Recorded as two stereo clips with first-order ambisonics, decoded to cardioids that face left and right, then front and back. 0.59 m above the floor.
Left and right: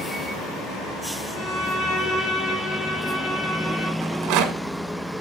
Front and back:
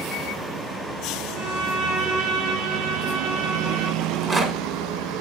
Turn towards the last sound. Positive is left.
turn(degrees=-110)